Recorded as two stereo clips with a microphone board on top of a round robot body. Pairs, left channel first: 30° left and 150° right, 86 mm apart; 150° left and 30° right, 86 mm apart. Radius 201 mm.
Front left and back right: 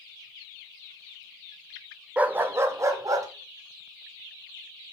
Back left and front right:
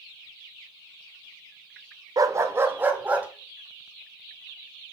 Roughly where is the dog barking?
Right.